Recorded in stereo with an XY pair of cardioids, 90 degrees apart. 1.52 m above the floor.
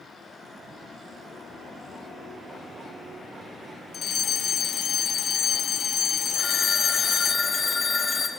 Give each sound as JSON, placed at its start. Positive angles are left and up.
{"t": 3.9, "sound": "a fire alarm", "azimuth_deg": 60, "distance_m": 2.5}
{"t": 6.3, "sound": "a phone ringing", "azimuth_deg": 35, "distance_m": 5.5}